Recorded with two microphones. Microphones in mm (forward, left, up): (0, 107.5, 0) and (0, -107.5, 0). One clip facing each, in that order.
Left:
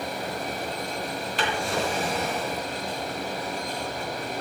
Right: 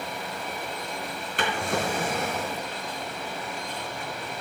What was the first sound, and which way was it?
A drawer, 55° right (ahead or behind).